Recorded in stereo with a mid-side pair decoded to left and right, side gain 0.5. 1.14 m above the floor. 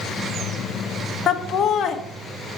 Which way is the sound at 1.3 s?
50° left.